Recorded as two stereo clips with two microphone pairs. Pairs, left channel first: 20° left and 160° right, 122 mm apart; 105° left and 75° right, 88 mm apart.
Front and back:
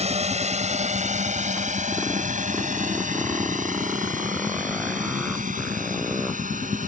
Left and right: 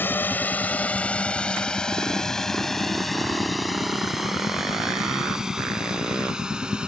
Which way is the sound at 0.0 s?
175° left.